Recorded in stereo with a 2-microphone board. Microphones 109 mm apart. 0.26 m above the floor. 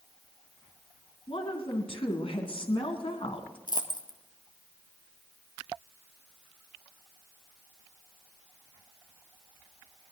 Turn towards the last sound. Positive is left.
turn(degrees=40)  # may be behind; listen again after turning